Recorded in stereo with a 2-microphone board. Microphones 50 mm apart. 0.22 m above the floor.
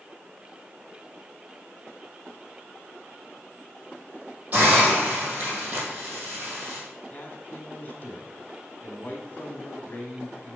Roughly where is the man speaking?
Left.